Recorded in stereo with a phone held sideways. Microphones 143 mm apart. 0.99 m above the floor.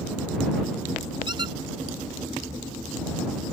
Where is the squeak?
35° right (ahead or behind).